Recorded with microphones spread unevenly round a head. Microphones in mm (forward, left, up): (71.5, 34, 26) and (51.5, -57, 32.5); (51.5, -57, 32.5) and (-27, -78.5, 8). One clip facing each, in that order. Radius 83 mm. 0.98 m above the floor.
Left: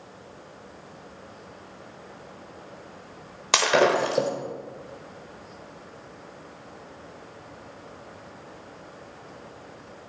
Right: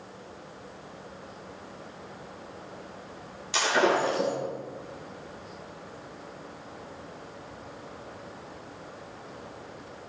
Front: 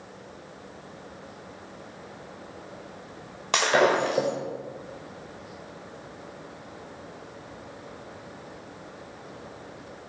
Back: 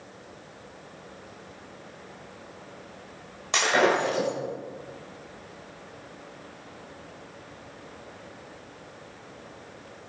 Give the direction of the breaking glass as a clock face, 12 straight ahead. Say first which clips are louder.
Left 4 dB, front 1 dB; 10 o'clock.